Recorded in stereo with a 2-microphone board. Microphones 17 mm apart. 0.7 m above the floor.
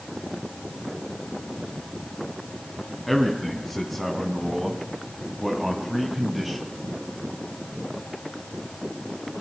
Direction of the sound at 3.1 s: 5° left (ahead or behind).